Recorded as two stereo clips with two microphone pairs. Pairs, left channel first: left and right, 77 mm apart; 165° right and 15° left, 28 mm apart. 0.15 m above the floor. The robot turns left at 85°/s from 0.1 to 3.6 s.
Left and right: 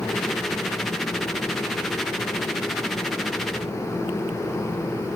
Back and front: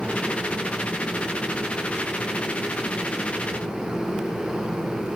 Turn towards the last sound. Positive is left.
No sound to turn to.